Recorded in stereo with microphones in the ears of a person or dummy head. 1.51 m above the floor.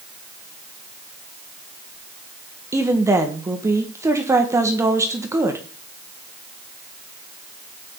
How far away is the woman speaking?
About 1.4 m.